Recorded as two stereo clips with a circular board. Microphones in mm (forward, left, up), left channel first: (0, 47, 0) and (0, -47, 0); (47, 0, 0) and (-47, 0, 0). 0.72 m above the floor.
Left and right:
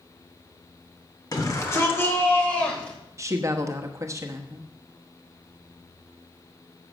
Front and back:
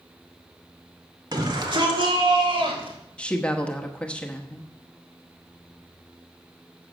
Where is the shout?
140° left, 2 m; by 3.0 s 170° left, 3.5 m.